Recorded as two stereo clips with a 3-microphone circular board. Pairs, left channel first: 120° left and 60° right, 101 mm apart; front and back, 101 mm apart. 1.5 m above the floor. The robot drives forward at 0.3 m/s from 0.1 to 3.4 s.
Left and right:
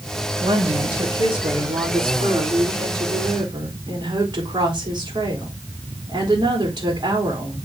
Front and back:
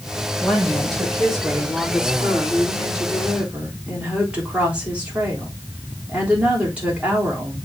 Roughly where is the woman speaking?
Right.